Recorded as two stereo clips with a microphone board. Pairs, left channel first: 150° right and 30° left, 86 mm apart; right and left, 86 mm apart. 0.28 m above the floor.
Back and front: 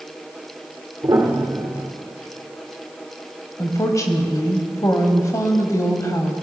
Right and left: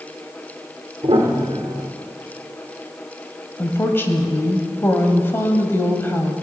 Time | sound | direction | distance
1.0 | a piano | 75° left | 2.5 m
3.6 | a woman speaking | 140° right | 1.1 m